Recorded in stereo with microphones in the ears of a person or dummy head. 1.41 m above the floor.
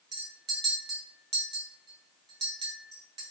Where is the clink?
25° right (ahead or behind), 0.9 m.